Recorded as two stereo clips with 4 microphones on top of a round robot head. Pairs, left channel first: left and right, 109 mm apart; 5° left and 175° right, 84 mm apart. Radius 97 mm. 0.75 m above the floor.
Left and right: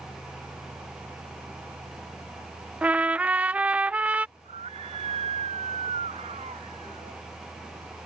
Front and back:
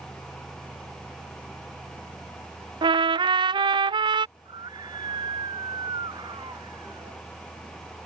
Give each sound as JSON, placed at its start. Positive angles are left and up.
{"t": 2.8, "sound": "a trumpet", "azimuth_deg": -165}
{"t": 4.4, "sound": "a scream", "azimuth_deg": -130}